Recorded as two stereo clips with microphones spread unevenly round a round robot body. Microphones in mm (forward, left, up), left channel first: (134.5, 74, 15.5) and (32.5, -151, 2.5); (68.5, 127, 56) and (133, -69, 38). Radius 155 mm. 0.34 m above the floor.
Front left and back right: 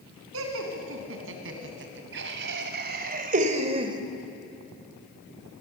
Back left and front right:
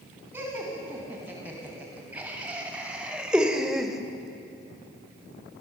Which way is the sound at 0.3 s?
155° right.